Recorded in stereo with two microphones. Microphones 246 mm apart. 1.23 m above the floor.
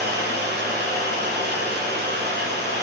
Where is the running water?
40° right (ahead or behind), 0.7 m.